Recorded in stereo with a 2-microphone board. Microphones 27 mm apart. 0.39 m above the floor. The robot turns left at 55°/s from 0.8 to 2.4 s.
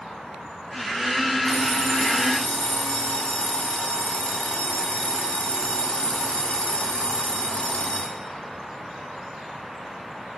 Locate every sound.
1.4 s an alarm clock: 95° left, 2 m; by 8.2 s 40° left, 2 m